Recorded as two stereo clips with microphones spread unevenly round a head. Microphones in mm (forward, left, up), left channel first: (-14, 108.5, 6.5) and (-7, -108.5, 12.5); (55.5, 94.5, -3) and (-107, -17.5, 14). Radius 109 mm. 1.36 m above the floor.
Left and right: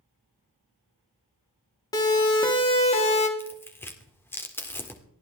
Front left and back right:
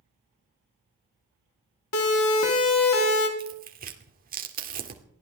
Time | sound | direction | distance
1.9 | a siren | 20° left | 3.5 m
3.4 | tearing paper | 170° left | 2 m